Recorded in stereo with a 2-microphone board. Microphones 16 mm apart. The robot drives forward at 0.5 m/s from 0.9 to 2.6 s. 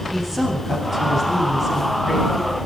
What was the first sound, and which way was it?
A woman speaking, 30° right (ahead or behind).